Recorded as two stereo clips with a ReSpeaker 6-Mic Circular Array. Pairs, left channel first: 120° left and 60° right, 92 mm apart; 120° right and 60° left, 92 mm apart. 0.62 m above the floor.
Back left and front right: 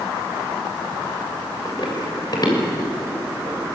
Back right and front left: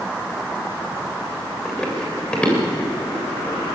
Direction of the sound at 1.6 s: 165° left.